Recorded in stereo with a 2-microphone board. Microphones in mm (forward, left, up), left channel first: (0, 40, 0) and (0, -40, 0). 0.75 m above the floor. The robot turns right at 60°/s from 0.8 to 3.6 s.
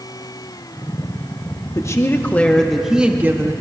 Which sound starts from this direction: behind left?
A woman speaking, at 1.8 s.